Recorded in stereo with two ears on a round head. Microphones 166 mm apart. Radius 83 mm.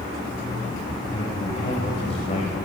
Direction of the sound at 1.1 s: 35° left (ahead or behind).